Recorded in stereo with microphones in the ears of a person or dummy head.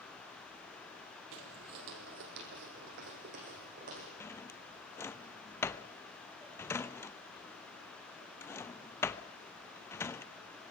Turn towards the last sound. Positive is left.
turn(degrees=15)  # may be behind; listen again after turning